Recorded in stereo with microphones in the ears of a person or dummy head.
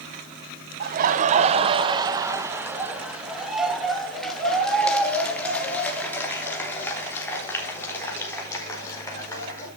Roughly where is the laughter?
Right.